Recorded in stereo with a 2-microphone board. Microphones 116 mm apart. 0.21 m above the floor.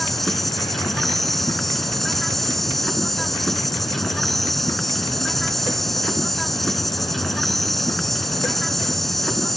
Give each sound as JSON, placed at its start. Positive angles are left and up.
{"t": 0.0, "sound": "an insect", "side_deg": 0}